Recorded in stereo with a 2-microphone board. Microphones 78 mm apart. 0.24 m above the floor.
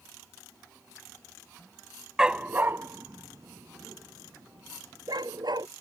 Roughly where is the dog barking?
Centre.